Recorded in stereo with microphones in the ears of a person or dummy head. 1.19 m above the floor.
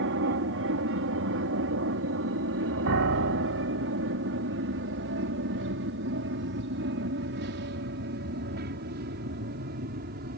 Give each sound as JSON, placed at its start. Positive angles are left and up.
{"t": 0.0, "sound": "an aircraft", "side_deg": -60}
{"t": 2.9, "sound": "a piano", "side_deg": -75}